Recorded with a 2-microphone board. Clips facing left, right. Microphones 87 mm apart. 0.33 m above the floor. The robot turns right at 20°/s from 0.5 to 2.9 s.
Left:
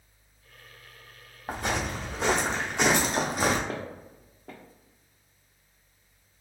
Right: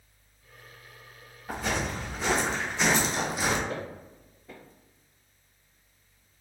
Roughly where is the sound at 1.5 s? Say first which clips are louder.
Left 1 dB; left.